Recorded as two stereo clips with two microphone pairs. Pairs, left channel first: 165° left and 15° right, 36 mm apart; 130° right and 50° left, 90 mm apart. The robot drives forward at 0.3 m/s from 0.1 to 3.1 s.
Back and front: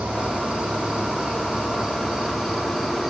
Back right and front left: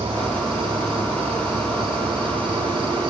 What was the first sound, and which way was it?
An insect, 40° left.